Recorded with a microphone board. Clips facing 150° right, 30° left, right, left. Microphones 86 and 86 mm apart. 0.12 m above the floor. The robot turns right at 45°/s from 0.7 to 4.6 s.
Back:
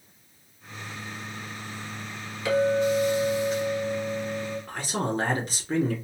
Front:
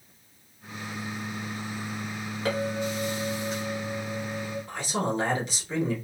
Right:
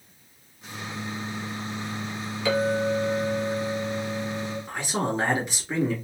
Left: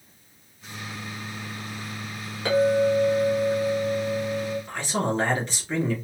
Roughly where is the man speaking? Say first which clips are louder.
Front 1 dB, right 2 dB; behind.